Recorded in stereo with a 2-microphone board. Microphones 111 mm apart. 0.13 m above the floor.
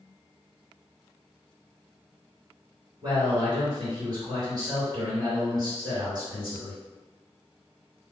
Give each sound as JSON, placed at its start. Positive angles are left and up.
{"t": 3.0, "sound": "a man speaking", "side_deg": -40, "distance_m": 2.0}